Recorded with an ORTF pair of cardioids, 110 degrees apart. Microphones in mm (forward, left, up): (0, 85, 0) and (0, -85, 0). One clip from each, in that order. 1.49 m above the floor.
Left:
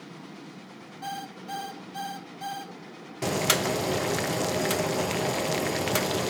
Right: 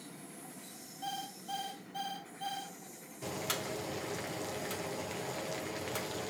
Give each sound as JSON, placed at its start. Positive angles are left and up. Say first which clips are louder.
{"t": 1.0, "sound": "an alarm clock", "louder": "left 4 dB", "azimuth_deg": 30, "distance_m": 3.0}
{"t": 3.2, "sound": "boiling", "louder": "left 12 dB", "azimuth_deg": 60, "distance_m": 0.6}